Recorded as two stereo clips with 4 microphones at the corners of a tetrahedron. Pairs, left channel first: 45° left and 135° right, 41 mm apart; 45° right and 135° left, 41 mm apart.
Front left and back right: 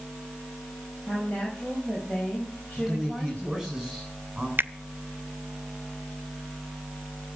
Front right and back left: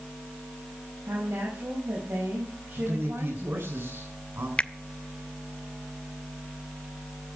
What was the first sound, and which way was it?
A woman speaking, 115° left.